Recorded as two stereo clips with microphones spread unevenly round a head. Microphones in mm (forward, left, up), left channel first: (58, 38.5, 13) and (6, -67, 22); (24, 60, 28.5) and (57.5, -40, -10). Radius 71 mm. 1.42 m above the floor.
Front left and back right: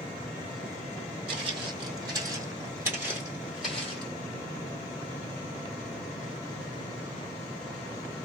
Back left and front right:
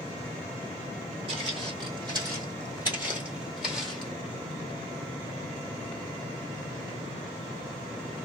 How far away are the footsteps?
About 1.9 m.